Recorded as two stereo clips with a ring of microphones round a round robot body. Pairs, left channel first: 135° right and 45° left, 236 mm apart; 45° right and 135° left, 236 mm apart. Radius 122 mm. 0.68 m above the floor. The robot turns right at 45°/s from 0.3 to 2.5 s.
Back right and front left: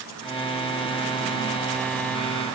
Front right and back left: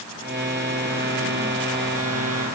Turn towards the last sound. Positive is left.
No sound to turn to.